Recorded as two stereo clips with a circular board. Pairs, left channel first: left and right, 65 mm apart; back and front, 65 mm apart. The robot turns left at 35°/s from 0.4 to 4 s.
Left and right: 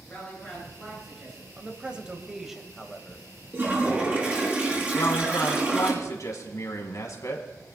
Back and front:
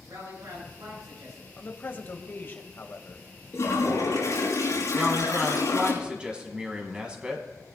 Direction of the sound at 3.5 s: 140° right.